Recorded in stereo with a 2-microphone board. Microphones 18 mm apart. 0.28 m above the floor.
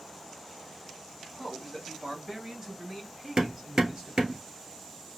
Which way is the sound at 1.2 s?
20° right (ahead or behind).